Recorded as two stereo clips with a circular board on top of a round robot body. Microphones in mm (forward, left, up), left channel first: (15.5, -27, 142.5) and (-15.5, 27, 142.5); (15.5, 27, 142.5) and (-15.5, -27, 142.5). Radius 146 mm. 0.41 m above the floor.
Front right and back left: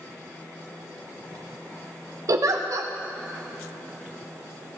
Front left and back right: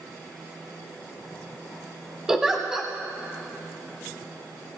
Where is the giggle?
155° left, 0.7 m.